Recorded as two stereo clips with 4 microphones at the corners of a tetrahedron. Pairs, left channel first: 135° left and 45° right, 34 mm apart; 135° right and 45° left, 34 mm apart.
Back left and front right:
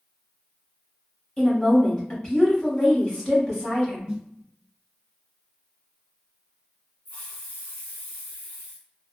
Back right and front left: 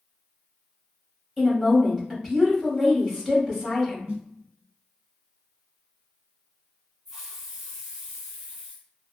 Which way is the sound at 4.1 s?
15° left.